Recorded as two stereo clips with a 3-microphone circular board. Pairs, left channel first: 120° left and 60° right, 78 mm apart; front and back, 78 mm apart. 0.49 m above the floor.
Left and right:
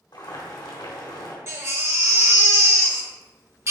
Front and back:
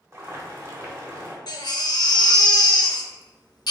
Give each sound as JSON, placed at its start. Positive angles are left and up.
{"t": 0.1, "sound": "boiling", "azimuth_deg": 130, "distance_m": 1.0}
{"t": 1.5, "sound": "a baby crying", "azimuth_deg": -10, "distance_m": 0.6}